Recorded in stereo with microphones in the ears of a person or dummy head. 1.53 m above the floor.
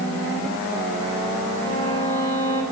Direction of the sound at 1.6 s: 30° left (ahead or behind).